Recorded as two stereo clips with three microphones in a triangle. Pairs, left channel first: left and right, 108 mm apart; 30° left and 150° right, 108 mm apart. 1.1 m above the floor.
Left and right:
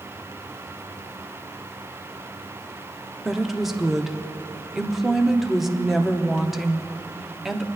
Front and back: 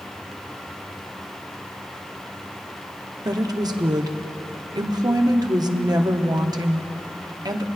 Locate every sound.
3.2 s a woman speaking: 175° right, 0.9 m